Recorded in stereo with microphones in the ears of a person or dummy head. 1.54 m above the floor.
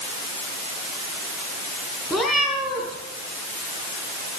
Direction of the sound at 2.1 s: Centre (ahead or behind).